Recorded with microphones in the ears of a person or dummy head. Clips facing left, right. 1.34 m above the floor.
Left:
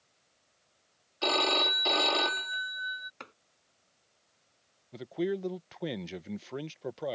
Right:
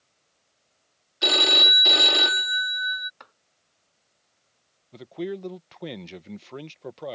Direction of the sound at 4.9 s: Centre (ahead or behind).